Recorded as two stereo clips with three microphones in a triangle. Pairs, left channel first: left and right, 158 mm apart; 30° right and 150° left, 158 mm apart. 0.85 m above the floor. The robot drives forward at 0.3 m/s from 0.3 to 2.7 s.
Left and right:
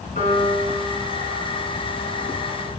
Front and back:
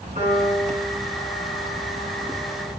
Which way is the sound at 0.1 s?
120° left.